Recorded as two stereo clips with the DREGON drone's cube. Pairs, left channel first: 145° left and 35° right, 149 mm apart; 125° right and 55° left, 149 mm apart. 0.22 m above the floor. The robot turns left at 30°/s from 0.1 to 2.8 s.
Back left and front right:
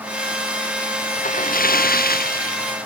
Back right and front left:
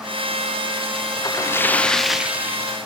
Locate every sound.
1.1 s a splash: 175° left; by 2.7 s 125° left